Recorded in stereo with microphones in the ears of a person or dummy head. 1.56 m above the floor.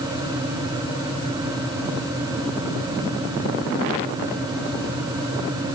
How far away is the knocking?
No knocking in this recording.